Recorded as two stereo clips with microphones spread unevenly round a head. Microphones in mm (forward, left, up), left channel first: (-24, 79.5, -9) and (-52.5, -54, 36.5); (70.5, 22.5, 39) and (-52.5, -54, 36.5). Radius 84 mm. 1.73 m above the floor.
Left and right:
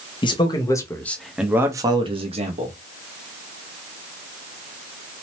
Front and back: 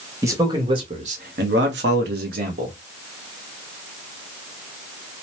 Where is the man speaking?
140° left, 1.1 m; by 2.8 s 120° right, 1.1 m.